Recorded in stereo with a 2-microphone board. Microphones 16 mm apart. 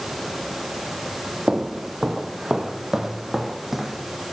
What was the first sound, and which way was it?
Footsteps, 55° right (ahead or behind).